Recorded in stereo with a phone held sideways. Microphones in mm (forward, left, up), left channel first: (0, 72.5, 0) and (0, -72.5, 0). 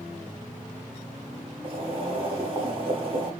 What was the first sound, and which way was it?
Boiling, 40° right (ahead or behind).